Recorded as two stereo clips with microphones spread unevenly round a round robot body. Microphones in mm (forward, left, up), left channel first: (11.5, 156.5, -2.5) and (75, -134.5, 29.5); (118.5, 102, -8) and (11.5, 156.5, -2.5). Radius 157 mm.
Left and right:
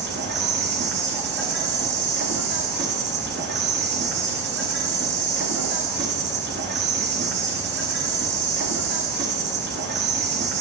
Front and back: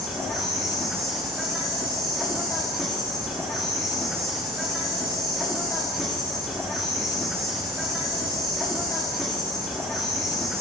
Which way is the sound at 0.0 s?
105° right.